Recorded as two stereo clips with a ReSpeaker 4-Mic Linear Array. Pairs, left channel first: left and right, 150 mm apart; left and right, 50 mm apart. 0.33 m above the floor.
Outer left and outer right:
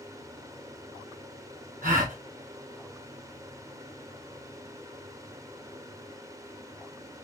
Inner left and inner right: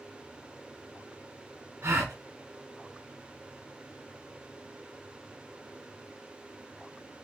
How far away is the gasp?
About 1.7 m.